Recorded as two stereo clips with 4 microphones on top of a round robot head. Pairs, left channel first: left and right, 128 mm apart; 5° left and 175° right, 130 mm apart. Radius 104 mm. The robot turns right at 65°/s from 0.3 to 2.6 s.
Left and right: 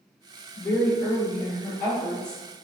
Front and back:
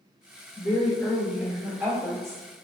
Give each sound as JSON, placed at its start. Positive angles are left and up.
{"t": 0.6, "sound": "a woman speaking", "azimuth_deg": 55, "distance_m": 1.4}